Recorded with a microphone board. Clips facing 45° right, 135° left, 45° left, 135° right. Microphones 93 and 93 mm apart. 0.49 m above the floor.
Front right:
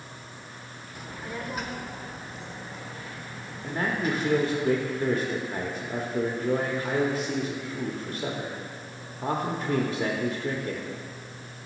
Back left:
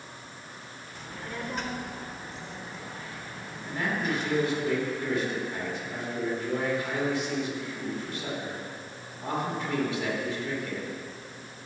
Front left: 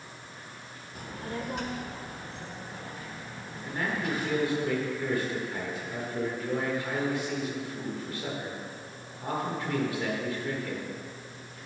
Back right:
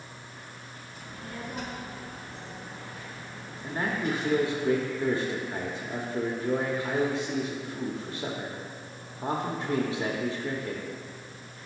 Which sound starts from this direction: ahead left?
A child speaking, at 0.9 s.